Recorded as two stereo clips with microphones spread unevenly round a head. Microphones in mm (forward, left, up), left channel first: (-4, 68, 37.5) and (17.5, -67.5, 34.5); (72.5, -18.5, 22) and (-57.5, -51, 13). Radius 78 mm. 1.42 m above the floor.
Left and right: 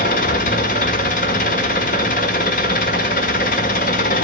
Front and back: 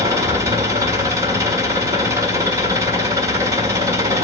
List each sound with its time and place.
0.0 s an engine running: 125° left, 1.6 m